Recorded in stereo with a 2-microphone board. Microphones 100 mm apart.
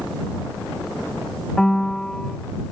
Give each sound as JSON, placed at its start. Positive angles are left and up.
{"t": 1.6, "sound": "a piano", "side_deg": 5}